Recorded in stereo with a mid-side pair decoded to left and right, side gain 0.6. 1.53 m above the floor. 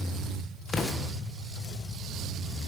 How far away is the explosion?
About 1.4 m.